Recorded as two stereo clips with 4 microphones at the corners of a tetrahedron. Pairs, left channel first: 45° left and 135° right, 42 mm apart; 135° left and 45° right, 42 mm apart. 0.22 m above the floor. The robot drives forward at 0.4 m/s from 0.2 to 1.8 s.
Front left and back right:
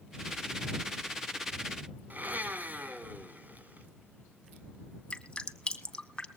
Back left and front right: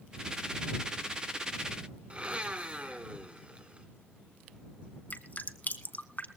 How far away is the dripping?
About 0.9 m.